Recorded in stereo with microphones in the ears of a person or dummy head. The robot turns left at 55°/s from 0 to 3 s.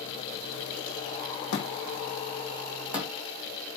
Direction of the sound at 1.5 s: 75° left (ahead or behind).